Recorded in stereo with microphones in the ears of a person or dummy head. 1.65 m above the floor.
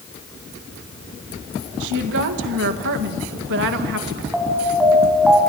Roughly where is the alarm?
Centre.